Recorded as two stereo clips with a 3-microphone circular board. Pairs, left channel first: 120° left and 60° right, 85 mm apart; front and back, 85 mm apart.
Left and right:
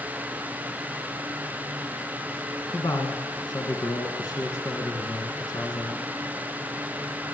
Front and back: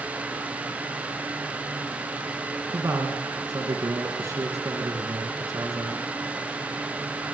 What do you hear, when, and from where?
2.7 s a man speaking: 135° left, 2.5 m